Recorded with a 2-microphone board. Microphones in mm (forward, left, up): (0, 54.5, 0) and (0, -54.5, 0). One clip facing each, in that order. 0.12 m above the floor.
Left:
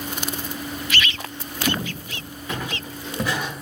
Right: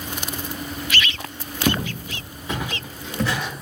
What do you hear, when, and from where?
1.7 s footsteps: 60° right (ahead or behind), 0.7 m; by 3.5 s 15° left (ahead or behind), 1.0 m